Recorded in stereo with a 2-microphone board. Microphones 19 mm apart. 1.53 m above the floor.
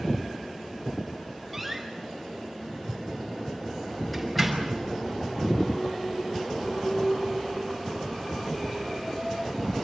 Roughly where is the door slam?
Centre.